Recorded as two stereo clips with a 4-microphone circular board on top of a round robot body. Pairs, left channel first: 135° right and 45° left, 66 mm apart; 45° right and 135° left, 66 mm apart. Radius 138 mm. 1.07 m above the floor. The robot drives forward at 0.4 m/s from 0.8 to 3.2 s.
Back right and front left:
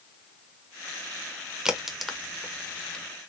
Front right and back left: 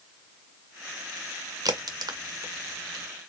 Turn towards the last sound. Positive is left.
turn(degrees=150)